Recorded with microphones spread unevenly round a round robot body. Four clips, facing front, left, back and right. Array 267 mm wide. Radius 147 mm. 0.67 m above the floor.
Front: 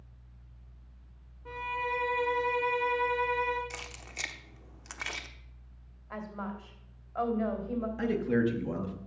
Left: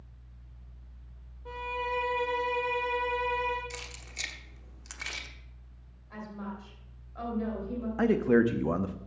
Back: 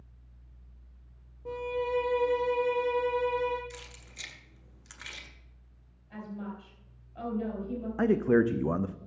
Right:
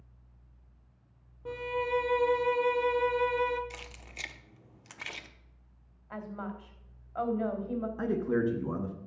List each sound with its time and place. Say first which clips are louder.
1.4 s a violin: right 2 dB, back 3 dB; 135° right, 0.7 m
3.7 s keys jangling: left 2 dB, front 4 dB; straight ahead, 1.0 m
6.1 s a woman speaking: right 1 dB, front 1 dB; 20° right, 3 m
8.0 s a man speaking: left 7 dB, back 5 dB; 100° left, 0.8 m